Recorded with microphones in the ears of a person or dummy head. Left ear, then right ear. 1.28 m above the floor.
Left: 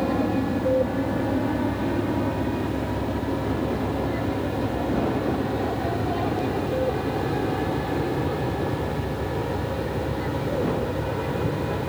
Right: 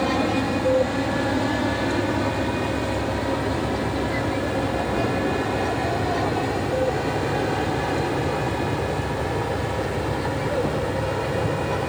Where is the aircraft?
60° right (ahead or behind); by 11.9 s 70° right (ahead or behind).